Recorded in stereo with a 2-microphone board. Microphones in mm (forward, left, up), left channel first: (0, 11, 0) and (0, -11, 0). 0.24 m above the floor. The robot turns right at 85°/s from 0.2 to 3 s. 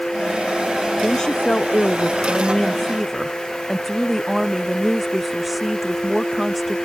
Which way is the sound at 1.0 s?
10° left.